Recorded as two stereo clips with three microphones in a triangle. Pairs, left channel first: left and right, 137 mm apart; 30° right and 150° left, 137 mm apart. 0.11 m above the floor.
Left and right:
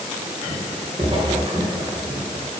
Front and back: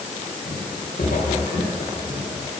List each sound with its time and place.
0.5 s footsteps: 45° right, 5 m